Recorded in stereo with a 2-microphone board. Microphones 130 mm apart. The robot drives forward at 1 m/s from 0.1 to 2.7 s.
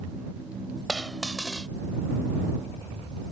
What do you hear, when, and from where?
0.9 s a dropped coin: centre (ahead or behind)